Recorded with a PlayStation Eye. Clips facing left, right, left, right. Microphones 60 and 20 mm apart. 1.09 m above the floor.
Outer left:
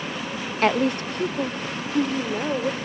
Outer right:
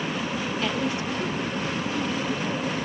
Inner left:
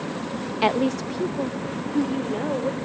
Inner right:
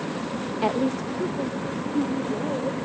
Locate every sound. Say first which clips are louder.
0.6 s a woman speaking: outer left 10 dB, inner left 3 dB; 55° left (ahead or behind), 1.1 m; by 2.8 s 60° left (ahead or behind), 4 m